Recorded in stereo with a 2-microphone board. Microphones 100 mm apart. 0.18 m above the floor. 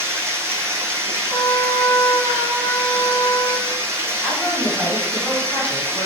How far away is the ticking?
I don't hear ticking.